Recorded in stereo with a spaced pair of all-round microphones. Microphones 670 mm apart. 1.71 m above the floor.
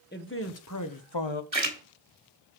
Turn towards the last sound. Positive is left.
turn(degrees=-40)  # may be behind; listen again after turning